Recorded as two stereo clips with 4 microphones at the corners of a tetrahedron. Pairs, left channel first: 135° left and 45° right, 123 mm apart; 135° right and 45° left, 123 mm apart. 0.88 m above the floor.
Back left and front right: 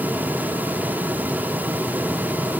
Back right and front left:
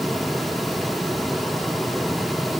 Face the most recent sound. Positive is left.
No sound to turn to.